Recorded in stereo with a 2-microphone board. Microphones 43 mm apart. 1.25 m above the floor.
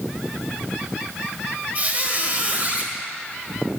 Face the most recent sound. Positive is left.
turn(degrees=-40)  # may be behind; listen again after turning